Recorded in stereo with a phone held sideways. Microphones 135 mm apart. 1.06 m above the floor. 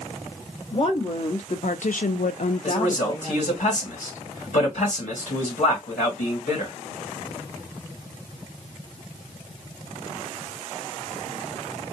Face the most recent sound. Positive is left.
turn(degrees=65)  # may be behind; listen again after turning